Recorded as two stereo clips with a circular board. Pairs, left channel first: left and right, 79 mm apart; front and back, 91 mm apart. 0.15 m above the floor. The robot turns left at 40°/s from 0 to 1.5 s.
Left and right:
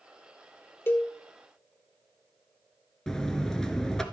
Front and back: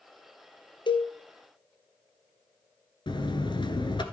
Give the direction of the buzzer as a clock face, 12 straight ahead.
12 o'clock.